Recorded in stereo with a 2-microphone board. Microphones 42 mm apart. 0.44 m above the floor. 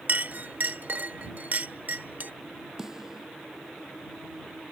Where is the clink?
45° right (ahead or behind).